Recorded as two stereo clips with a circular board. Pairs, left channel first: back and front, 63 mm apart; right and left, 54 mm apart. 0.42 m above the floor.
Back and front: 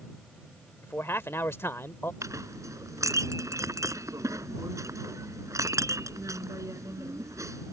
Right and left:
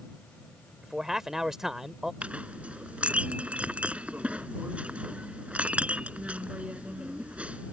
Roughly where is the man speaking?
Behind.